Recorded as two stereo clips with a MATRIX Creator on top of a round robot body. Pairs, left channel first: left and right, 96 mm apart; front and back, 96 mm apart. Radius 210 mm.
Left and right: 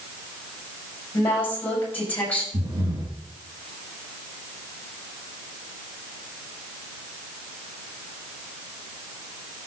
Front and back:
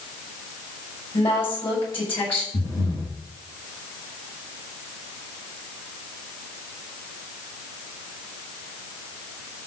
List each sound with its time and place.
1.1 s a woman speaking: 20° left, 6.5 m; by 2.4 s 15° left, 6.5 m
2.5 s breathing: 45° right, 3 m